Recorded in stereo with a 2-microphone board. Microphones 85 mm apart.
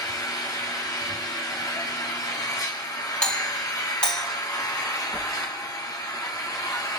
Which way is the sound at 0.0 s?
50° left (ahead or behind).